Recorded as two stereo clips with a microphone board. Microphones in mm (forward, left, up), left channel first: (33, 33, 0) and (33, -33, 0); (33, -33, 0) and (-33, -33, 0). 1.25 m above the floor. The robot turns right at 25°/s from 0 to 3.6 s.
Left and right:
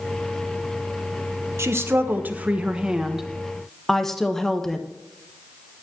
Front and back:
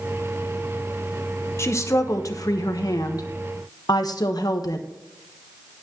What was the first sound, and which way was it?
A woman speaking, 45° right.